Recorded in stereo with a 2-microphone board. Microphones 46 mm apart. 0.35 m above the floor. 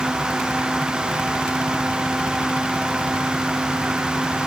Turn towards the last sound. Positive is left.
No sound to turn to.